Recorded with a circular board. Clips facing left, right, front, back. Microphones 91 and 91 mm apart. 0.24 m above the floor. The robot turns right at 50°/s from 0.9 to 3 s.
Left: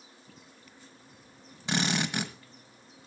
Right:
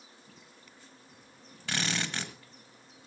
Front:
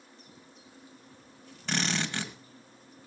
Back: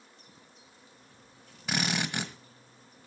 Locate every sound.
1.7 s a drill: 115° left, 1.4 m; by 2.3 s 145° left, 1.4 m